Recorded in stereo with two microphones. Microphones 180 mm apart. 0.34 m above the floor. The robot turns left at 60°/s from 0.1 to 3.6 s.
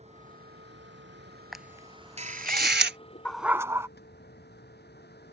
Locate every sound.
0.0 s a vehicle: 40° right; by 5.3 s 110° left
1.5 s a camera shutter: centre (ahead or behind); by 3.0 s 80° right
3.2 s a dog barking: 5° left (ahead or behind); by 3.9 s 15° right (ahead or behind)